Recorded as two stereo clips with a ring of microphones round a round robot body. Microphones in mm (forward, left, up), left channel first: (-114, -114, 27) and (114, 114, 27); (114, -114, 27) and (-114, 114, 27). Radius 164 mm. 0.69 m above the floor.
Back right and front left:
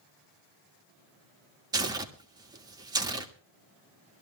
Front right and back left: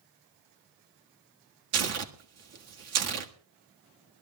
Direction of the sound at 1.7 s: 120° left.